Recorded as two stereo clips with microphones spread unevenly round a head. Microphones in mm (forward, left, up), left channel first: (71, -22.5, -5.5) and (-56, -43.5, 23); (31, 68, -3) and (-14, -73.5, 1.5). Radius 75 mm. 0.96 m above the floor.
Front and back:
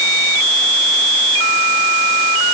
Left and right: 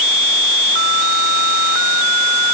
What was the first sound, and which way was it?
Only background noise.